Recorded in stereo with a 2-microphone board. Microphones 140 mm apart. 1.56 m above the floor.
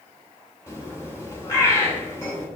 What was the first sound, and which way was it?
A bird, 20° left (ahead or behind).